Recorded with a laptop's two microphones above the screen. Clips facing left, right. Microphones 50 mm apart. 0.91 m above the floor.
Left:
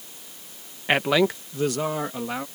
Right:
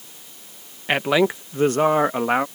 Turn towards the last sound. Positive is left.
turn(degrees=-60)  # may be behind; listen again after turning